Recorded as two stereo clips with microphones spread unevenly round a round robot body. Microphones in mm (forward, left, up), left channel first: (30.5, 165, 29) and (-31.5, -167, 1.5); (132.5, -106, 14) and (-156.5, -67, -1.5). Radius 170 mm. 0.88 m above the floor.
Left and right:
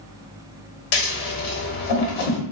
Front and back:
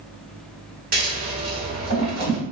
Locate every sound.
0.9 s scissors: 105° left, 1.0 m